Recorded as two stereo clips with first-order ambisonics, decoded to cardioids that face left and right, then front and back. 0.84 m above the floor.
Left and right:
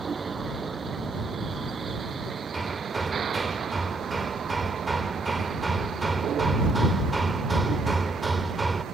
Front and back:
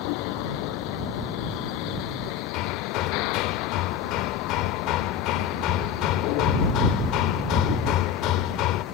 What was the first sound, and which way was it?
A vehicle, 15° right.